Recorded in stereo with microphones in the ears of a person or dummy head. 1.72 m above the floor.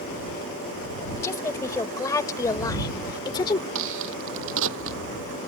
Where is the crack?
70° right (ahead or behind).